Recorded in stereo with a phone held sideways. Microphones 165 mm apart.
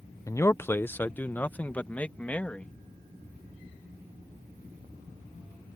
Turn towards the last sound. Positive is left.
turn(degrees=10)  # may be behind; listen again after turning